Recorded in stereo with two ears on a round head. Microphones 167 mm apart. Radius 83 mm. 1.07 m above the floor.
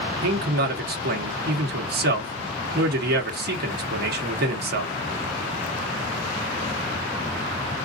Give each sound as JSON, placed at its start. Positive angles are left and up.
{"t": 0.2, "sound": "a man speaking", "side_deg": -55, "distance_m": 1.1}